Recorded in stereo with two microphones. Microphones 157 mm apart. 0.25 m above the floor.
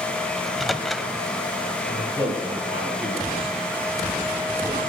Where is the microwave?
Centre (ahead or behind), 0.8 m.